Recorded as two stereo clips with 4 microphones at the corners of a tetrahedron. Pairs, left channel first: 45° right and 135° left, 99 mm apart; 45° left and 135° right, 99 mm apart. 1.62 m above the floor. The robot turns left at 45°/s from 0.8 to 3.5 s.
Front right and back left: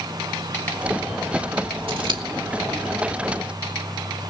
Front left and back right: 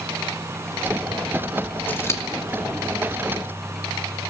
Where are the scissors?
115° left, 2.5 m; by 2.2 s 100° left, 2.5 m.